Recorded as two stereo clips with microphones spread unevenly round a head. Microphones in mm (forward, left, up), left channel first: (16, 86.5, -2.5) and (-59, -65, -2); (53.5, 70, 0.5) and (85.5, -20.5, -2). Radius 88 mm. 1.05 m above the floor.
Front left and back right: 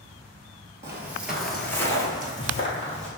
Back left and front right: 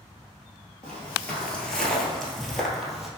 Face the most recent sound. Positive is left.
turn(degrees=20)